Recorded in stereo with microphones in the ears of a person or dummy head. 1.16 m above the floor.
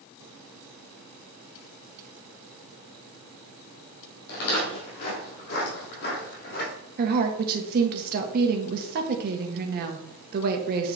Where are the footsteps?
55° left (ahead or behind), 3.5 m; by 6.7 s 50° left (ahead or behind), 2.5 m.